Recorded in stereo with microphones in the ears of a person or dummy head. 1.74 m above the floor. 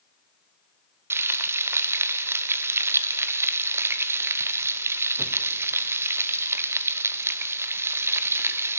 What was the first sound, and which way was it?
Frying, 5° right (ahead or behind).